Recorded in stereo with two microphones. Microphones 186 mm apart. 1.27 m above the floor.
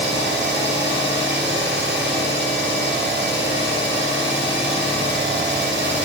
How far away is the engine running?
About 0.9 m.